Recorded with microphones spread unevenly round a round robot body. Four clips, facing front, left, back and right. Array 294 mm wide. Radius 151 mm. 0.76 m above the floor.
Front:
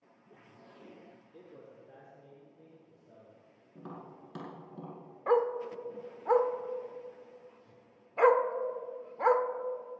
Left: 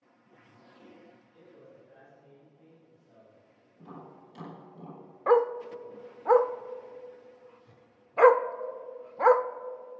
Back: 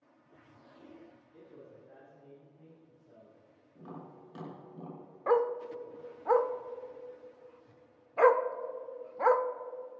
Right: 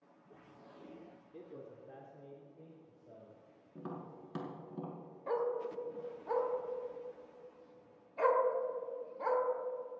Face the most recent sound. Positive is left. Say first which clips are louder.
# left 12 dB, even
turn(degrees=85)